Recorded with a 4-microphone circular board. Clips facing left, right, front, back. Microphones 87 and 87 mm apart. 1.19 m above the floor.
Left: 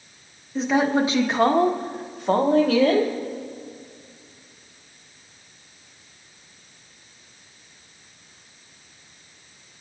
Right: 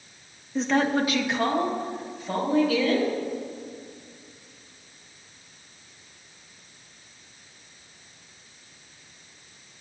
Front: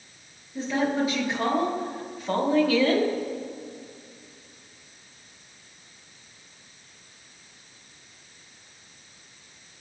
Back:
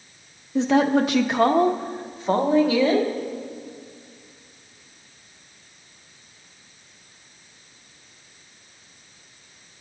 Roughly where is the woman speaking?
Behind.